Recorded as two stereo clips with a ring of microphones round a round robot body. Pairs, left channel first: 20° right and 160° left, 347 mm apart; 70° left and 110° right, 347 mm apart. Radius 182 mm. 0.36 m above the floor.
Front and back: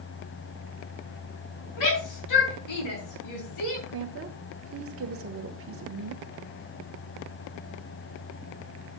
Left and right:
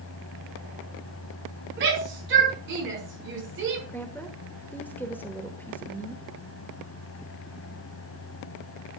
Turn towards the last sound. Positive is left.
turn(degrees=150)